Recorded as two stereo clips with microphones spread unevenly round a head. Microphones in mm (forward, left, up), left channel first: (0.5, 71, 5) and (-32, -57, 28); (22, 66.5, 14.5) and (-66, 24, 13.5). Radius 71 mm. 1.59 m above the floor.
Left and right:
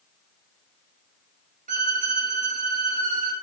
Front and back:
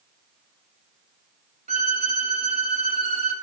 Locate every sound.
1.7 s a violin: 125° right, 3 m